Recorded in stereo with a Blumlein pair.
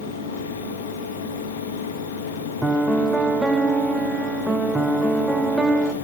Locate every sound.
0.0 s a fan: 60° left, 1.8 m
2.6 s a piano: 5° right, 0.8 m